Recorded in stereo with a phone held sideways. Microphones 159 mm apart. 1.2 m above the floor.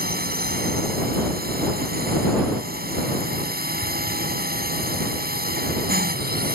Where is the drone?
75° right (ahead or behind).